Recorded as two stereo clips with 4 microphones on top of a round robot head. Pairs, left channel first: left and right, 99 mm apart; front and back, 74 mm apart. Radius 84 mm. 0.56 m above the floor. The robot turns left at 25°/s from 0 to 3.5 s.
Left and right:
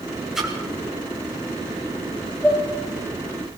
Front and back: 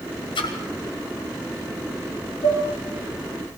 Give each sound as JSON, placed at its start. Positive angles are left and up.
{"t": 0.3, "sound": "a splash", "azimuth_deg": -5, "distance_m": 2.0}
{"t": 2.4, "sound": "dishes clattering", "azimuth_deg": 0, "distance_m": 7.0}